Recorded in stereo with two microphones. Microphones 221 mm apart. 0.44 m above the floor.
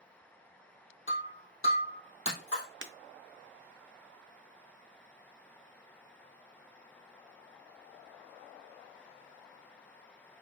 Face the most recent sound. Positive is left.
turn(degrees=-60)  # may be behind; listen again after turning